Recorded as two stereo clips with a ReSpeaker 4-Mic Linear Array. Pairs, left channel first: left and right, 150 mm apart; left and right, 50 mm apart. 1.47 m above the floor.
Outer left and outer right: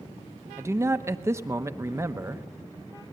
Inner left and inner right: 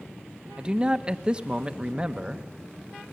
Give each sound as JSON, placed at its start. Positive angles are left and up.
{"t": 0.6, "sound": "a man speaking", "side_deg": -20, "distance_m": 1.0}